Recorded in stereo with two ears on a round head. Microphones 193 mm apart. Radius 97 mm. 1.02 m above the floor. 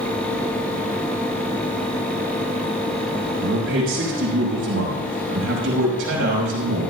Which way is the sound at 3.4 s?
70° right (ahead or behind).